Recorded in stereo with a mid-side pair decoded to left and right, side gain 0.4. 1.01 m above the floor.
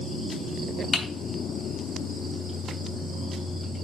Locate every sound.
0.9 s typing on a keyboard: 40° left, 3 m